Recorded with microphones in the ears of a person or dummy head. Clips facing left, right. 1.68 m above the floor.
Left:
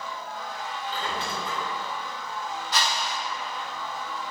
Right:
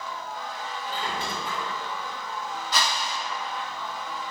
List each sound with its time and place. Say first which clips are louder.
0.9 s a squeak: even; 15° right (ahead or behind), 1.1 m
2.7 s a whoosh: even; 70° right (ahead or behind), 0.6 m